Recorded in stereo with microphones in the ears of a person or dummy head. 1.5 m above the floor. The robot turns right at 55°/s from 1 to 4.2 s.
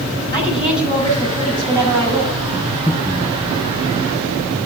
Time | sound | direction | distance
0.3 | a woman speaking | 155° left | 7 m
2.6 | breathing | 15° left (ahead or behind) | 5 m